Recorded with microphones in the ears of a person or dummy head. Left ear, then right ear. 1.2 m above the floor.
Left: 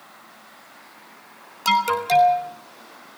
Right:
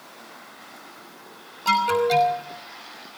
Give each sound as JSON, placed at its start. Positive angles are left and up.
{"t": 1.6, "sound": "an alarm", "side_deg": 85, "distance_m": 4.5}